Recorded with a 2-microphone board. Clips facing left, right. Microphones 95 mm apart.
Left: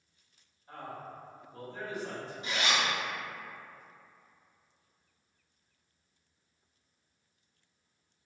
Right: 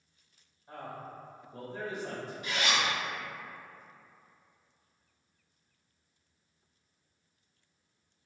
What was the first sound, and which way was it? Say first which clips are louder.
A man speaking: even; 25° right (ahead or behind).